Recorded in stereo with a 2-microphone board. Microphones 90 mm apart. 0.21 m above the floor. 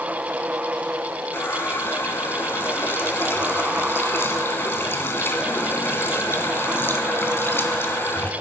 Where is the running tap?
25° left (ahead or behind), 1.2 m.